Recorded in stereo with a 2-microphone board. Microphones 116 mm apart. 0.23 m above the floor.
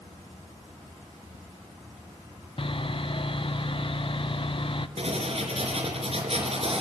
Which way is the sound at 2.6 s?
50° left (ahead or behind).